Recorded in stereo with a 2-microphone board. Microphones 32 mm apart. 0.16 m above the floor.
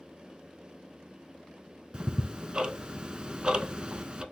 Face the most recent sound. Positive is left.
turn(degrees=-30)  # may be behind; listen again after turning